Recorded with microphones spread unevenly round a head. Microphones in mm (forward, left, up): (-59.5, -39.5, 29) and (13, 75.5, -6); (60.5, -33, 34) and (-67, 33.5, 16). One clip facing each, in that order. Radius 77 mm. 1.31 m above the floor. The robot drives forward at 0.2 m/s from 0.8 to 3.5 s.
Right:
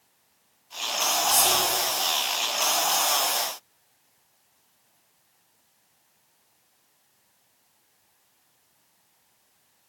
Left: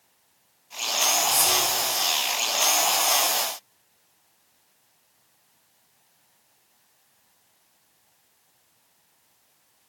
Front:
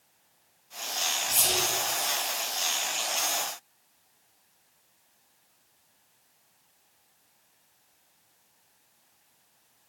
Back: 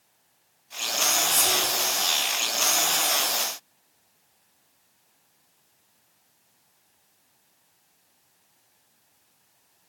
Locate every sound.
1.3 s whispering: 175° left, 1.5 m